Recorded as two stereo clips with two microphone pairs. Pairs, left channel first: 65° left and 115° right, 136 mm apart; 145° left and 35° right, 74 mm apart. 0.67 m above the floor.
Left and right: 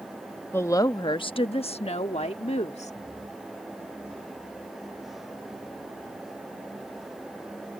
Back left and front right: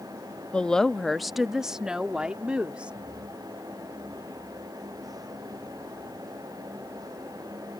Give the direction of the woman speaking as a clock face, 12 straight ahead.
9 o'clock.